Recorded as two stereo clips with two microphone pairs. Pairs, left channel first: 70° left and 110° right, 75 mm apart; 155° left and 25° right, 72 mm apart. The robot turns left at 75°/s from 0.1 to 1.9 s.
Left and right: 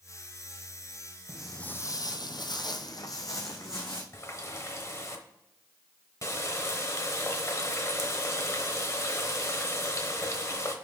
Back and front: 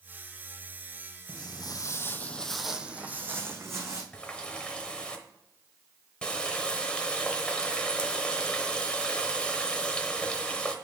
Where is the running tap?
85° left, 0.9 m.